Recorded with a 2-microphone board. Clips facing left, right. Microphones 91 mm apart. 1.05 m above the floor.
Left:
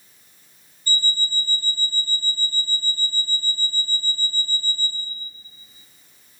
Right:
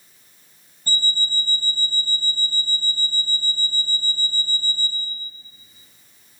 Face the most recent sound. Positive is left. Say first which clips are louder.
# even
turn(degrees=-50)  # may be behind; listen again after turning